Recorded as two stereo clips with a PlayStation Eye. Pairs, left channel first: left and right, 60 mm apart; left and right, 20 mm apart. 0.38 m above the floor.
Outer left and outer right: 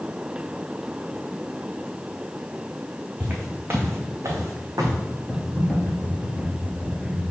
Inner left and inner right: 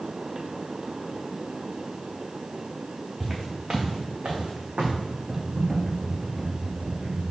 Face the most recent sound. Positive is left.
turn(degrees=20)  # may be behind; listen again after turning